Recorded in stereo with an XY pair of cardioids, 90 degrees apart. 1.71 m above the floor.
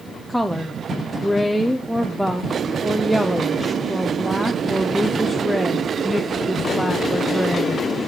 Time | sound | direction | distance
0.3 | a woman speaking | 5° left | 0.7 m